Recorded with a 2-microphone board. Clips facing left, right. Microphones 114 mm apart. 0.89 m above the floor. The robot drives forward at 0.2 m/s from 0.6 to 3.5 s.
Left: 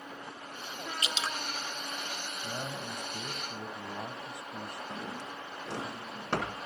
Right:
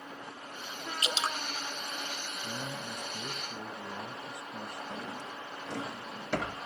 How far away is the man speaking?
About 5 m.